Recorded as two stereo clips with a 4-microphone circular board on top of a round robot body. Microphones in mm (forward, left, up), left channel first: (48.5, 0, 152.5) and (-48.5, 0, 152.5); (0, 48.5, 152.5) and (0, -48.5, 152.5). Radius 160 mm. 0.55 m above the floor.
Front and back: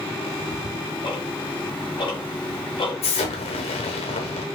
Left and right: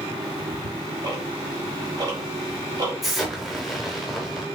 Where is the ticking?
40° right, 1.5 m.